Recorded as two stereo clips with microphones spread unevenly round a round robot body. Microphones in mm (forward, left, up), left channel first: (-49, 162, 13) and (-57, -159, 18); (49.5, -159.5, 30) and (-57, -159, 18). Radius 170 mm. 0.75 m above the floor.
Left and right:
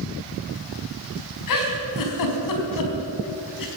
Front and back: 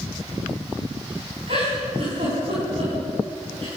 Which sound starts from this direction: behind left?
A giggle, at 1.5 s.